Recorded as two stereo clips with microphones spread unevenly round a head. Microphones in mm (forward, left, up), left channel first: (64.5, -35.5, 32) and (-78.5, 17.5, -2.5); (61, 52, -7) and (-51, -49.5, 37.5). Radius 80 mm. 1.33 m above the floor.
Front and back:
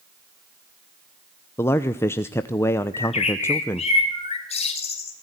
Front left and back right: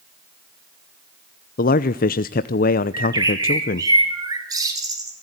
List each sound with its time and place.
1.6 s a man speaking: 60° left, 0.8 m
2.9 s a bird: 70° right, 5 m